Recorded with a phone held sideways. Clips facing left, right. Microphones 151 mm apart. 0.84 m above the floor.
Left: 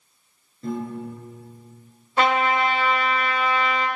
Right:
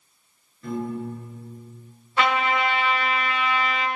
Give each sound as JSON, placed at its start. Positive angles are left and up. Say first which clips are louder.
{"t": 0.6, "sound": "a piano", "louder": "even", "side_deg": 35, "distance_m": 2.5}
{"t": 2.2, "sound": "a trumpet", "louder": "left 2 dB", "side_deg": 40, "distance_m": 0.8}